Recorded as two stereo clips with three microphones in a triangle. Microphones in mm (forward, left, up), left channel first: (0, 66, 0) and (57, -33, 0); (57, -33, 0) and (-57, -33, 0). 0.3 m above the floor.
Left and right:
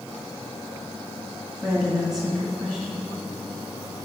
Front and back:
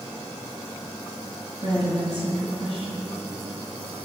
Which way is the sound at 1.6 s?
145° right.